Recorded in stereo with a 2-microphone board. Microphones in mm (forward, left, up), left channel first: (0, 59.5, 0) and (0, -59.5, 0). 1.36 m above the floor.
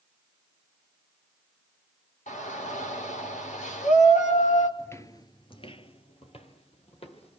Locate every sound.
2.3 s a shout: 80° left, 5 m
4.8 s footsteps: 15° left (ahead or behind), 1.6 m; by 7.4 s 50° left (ahead or behind), 4 m